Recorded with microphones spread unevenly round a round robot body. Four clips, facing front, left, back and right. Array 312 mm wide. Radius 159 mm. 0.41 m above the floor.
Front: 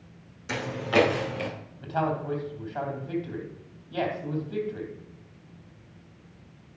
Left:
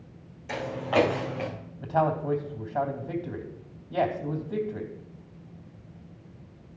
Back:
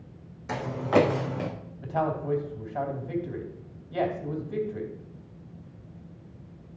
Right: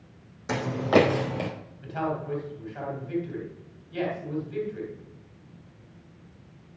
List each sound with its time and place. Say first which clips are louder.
0.5 s footsteps: right 5 dB, back 2 dB; 95° right, 1.5 m; by 1.5 s 115° right, 1.8 m
1.8 s a man speaking: left 5 dB, even; 85° left, 3 m